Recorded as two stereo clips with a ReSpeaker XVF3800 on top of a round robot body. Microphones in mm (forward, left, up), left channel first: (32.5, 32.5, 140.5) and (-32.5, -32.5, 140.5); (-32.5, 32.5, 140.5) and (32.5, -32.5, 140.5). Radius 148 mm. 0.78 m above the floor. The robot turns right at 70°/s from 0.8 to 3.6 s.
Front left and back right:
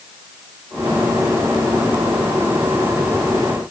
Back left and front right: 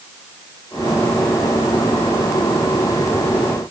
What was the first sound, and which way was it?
Only background noise.